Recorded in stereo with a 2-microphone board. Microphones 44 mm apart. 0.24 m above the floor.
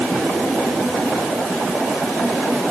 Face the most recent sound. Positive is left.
No sound to turn to.